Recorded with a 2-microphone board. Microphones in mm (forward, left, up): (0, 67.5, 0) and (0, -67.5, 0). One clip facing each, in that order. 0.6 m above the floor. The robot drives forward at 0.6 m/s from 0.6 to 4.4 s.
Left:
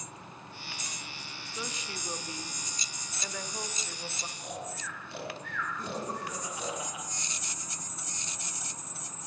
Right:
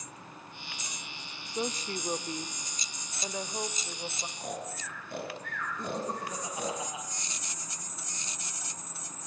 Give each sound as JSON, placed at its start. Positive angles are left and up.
{"t": 1.5, "sound": "a woman speaking", "side_deg": -40, "distance_m": 1.0}
{"t": 4.4, "sound": "snoring", "side_deg": -50, "distance_m": 7.5}
{"t": 5.8, "sound": "laughter", "side_deg": -25, "distance_m": 5.0}